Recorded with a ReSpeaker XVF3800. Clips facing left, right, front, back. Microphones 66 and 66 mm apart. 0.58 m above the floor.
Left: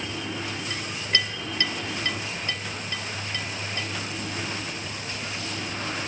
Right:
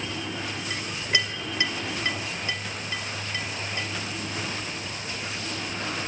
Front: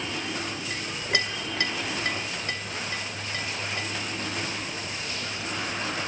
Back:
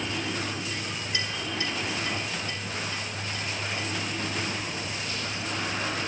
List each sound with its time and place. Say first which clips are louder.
0.7 s a clink: right 1 dB, front 3 dB; 15° right, 1.8 m